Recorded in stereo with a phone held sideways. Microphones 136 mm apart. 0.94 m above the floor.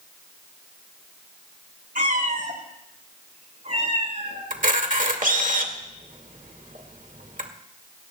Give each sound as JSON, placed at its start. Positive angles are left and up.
{"t": 1.9, "sound": "a cat meowing", "side_deg": -85, "distance_m": 3.0}
{"t": 4.5, "sound": "a camera shutter", "side_deg": -75, "distance_m": 2.0}